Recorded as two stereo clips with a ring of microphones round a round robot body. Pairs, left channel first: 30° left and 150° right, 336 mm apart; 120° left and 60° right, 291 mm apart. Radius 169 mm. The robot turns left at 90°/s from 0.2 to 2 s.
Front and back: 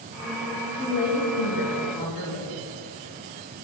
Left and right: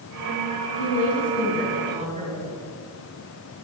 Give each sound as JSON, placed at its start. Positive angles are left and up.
{"t": 0.8, "sound": "a woman speaking", "azimuth_deg": 115, "distance_m": 3.5}